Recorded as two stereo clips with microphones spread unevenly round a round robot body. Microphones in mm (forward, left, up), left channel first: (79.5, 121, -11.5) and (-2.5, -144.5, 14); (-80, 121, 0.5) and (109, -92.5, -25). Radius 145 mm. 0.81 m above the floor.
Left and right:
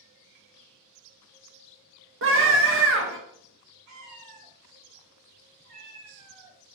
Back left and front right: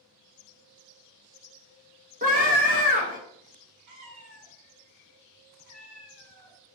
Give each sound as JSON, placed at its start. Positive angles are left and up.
{"t": 2.2, "sound": "a scream", "azimuth_deg": -85, "distance_m": 1.0}
{"t": 3.9, "sound": "a cat meowing", "azimuth_deg": -100, "distance_m": 1.2}